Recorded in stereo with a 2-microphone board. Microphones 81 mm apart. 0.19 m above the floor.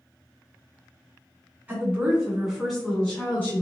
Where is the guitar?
No guitar in this recording.